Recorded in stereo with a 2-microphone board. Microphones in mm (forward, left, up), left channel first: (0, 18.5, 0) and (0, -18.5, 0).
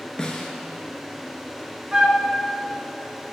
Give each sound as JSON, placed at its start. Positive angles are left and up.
{"t": 0.2, "sound": "a snare drum", "side_deg": 20, "distance_m": 0.7}
{"t": 1.9, "sound": "a flute", "side_deg": -20, "distance_m": 0.6}